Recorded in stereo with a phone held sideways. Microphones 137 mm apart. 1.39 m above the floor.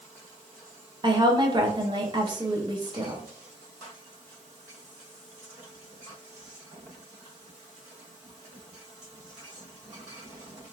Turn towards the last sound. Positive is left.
turn(degrees=-35)  # may be behind; listen again after turning